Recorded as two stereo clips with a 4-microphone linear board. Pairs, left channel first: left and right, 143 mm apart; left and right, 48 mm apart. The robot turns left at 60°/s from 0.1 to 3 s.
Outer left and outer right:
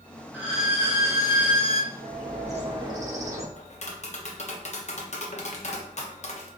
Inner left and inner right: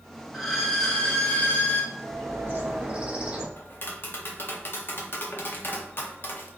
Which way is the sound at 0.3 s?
165° right.